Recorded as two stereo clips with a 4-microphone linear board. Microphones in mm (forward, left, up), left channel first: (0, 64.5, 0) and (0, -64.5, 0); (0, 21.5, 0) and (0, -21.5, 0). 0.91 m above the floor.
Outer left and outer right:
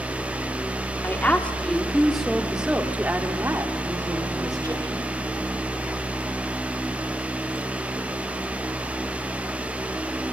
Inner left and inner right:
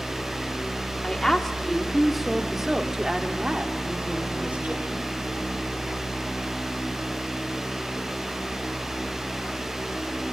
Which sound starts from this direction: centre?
A woman speaking, at 1.0 s.